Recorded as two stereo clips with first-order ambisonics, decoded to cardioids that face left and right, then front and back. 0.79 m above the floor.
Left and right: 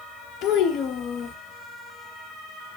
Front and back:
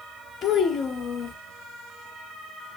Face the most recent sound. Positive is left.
turn(degrees=60)